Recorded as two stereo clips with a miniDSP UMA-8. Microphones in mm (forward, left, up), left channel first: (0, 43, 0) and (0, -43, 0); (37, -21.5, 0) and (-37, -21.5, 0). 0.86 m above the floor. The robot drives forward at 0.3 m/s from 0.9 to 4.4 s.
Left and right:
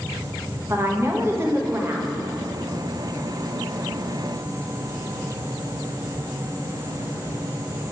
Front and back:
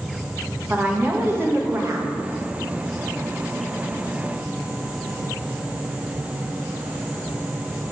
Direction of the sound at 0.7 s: 125° right.